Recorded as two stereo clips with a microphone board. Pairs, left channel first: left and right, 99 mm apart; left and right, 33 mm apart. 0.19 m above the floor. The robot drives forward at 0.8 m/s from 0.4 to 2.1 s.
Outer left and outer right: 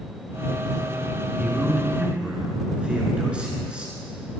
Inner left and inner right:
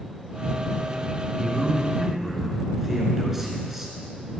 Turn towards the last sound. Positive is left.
turn(degrees=-10)  # may be behind; listen again after turning